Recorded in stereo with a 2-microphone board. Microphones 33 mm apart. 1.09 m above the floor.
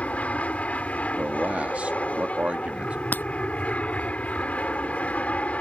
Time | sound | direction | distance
0.0 | an aircraft | 45° left (ahead or behind) | ?
1.2 | a man speaking | 40° right (ahead or behind) | ?
3.1 | breaking glass | 60° left (ahead or behind) | ?